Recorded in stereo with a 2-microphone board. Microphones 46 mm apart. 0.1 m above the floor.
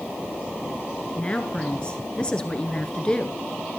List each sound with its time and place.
1.1 s a woman speaking: 20° left (ahead or behind), 1.2 m